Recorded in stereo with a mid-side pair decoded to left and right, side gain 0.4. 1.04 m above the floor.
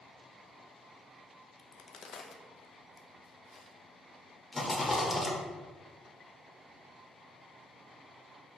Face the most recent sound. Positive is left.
turn(degrees=30)